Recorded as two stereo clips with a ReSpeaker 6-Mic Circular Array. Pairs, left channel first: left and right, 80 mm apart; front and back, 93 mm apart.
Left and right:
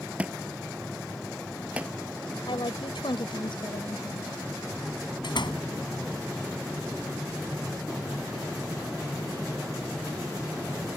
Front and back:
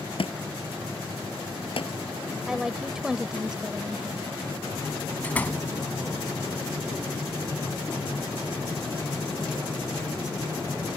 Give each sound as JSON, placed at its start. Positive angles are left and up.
{"t": 0.2, "sound": "a thud", "azimuth_deg": -15}
{"t": 2.5, "sound": "a woman speaking", "azimuth_deg": 95}
{"t": 5.2, "sound": "a door slam", "azimuth_deg": 75}